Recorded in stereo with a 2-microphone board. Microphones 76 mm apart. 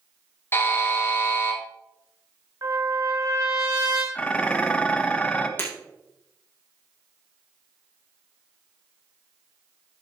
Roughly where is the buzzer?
Left.